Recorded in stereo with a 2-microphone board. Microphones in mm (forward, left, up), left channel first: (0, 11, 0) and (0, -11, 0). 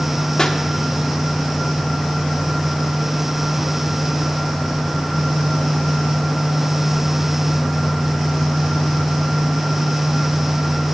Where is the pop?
30° left (ahead or behind), 1.0 m.